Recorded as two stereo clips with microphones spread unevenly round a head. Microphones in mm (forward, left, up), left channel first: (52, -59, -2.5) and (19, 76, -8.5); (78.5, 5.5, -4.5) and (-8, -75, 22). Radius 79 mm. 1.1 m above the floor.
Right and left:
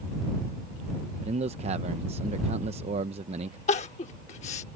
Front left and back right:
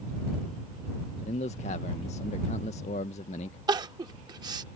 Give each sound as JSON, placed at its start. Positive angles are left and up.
{"t": 1.2, "sound": "a man speaking", "azimuth_deg": 65}
{"t": 3.7, "sound": "crying", "azimuth_deg": -105}